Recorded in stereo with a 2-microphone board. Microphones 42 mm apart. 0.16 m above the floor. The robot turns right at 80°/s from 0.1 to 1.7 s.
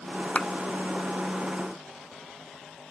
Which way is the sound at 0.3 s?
35° left (ahead or behind).